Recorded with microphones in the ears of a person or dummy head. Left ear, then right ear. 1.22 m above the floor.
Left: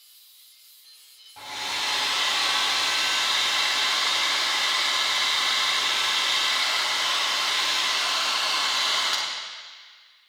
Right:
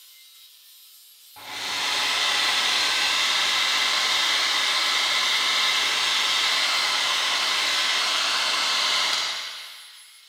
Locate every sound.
1.4 s a hair dryer: 10° left (ahead or behind), 1.1 m